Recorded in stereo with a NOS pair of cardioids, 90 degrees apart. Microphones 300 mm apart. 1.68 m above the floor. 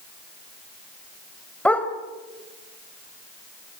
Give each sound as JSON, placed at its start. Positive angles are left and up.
{"t": 1.6, "sound": "a dog barking", "azimuth_deg": 5, "distance_m": 3.5}